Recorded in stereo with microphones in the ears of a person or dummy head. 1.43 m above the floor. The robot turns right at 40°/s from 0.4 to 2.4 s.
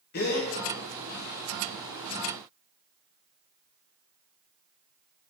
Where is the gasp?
55° left (ahead or behind), 0.8 m; by 0.5 s 50° left (ahead or behind), 0.8 m.